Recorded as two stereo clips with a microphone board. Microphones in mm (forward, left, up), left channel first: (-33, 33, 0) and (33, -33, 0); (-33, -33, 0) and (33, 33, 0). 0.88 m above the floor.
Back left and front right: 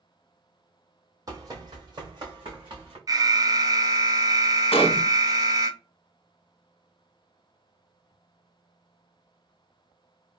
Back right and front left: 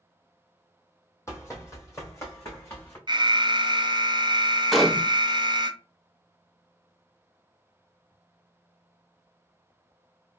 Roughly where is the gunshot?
Behind left.